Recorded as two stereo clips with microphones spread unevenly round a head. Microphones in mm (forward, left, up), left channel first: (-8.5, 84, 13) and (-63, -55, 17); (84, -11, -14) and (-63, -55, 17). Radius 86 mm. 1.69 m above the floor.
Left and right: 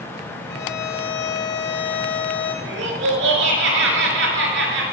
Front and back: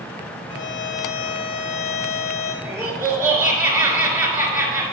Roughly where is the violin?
Ahead left.